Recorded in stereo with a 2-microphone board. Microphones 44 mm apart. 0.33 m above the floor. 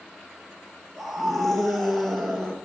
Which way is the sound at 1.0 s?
Centre (ahead or behind).